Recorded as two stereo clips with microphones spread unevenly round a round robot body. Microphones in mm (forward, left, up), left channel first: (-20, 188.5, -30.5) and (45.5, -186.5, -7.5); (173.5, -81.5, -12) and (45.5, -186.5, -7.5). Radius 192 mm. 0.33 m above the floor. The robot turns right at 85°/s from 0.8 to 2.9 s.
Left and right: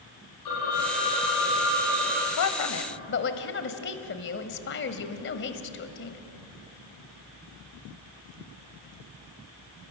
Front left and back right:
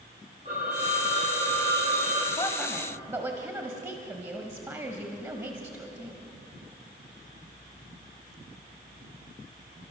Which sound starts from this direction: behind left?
A phone ringing, at 0.5 s.